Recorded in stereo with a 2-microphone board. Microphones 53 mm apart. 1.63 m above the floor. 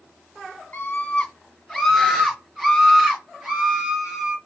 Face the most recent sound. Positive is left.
turn(degrees=-20)  # may be behind; listen again after turning